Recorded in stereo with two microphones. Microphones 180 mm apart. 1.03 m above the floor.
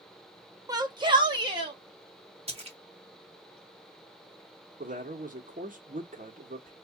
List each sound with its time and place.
0.7 s a shout: 20° right (ahead or behind), 0.5 m; by 1.8 s 25° right (ahead or behind), 1.2 m
2.5 s a splash: 35° right (ahead or behind), 1.2 m
4.8 s a man speaking: 50° right (ahead or behind), 1.2 m